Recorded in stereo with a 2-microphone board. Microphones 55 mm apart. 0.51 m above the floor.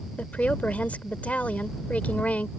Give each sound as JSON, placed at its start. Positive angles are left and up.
{"t": 0.2, "sound": "a woman speaking", "side_deg": 25}